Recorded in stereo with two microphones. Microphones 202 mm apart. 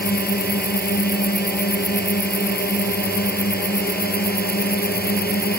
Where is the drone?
50° left (ahead or behind).